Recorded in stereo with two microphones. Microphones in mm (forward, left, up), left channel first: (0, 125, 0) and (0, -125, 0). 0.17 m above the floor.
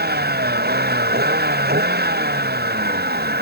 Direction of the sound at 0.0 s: 40° right (ahead or behind).